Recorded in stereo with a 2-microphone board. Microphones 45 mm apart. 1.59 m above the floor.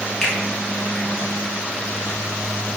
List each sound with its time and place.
0.2 s a finger snap: 10° left (ahead or behind), 0.7 m